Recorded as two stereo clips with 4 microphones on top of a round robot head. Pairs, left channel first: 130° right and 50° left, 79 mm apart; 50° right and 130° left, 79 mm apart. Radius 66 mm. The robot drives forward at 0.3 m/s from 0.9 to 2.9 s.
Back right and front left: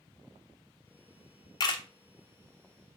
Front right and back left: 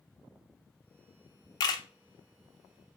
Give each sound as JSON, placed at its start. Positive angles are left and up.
{"t": 1.6, "sound": "a camera shutter", "azimuth_deg": -90, "distance_m": 0.5}